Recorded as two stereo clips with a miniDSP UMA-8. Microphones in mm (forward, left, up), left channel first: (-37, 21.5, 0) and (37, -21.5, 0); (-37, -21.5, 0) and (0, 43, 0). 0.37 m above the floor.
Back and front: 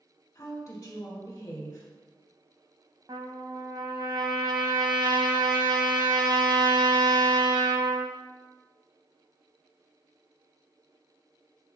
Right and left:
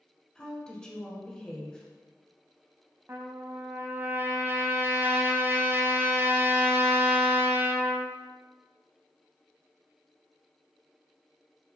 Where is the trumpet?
5° left, 0.6 m.